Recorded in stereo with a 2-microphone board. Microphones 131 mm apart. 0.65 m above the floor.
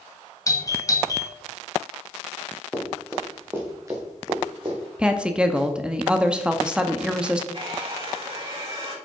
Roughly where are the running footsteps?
Centre.